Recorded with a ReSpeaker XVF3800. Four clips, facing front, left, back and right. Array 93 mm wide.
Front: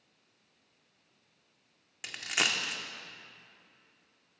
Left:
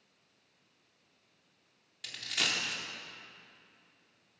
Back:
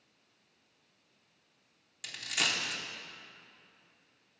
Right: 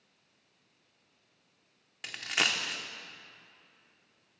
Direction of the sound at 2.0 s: 55° right.